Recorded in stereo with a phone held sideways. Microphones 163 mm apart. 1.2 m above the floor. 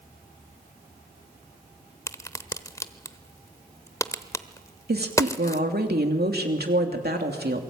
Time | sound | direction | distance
2.1 | a crack | 20° left (ahead or behind) | 0.9 m
4.9 | a woman speaking | 80° right | 3 m